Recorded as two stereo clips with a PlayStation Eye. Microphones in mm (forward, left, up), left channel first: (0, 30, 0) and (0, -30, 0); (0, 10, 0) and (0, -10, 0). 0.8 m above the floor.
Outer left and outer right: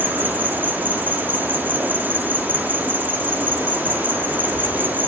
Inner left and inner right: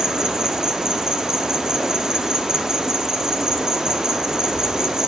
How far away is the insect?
About 1.8 m.